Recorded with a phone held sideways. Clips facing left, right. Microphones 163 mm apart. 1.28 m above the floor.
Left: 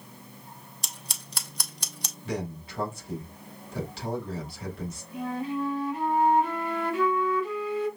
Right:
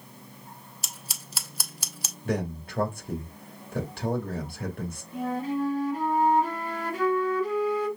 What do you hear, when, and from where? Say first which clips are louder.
0.8 s scissors: left 1 dB; 5° right (ahead or behind), 0.9 m
2.2 s a man speaking: right 4 dB; 50° right (ahead or behind), 2.5 m
5.1 s a flute: right 2 dB; 40° right (ahead or behind), 2.5 m